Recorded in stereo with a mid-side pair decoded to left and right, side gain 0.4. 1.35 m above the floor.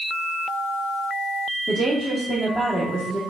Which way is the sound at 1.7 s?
10° left.